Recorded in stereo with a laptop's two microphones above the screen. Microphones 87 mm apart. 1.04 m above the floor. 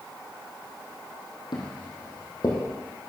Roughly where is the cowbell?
No cowbell in this recording.